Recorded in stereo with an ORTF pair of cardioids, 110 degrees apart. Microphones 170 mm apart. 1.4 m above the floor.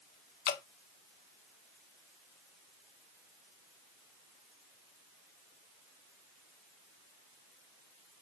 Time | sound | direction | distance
0.5 | dripping | 70° left | 0.6 m